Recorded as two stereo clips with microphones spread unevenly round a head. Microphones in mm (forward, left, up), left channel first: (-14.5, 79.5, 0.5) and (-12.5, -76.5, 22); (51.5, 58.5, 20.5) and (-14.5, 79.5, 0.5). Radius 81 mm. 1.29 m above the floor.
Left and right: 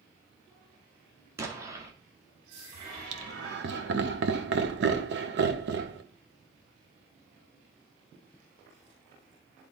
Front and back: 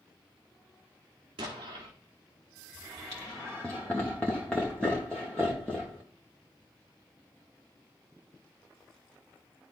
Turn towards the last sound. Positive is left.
turn(degrees=-105)